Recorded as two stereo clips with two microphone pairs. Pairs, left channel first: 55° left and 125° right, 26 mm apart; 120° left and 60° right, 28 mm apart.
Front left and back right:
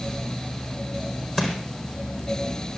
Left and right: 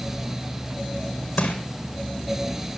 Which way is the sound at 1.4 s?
150° left.